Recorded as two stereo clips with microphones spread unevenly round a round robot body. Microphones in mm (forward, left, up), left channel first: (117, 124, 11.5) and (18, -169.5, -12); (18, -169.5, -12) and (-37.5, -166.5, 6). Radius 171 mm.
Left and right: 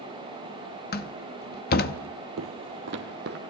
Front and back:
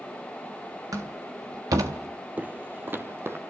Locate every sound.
0.9 s a door slam: 135° left, 0.7 m
2.4 s footsteps: 155° right, 1.4 m; by 3.4 s 170° right, 1.9 m